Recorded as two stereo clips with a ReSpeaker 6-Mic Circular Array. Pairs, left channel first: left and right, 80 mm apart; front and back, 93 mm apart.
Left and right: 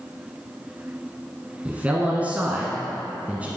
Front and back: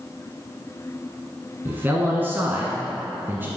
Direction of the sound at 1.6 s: 140° right.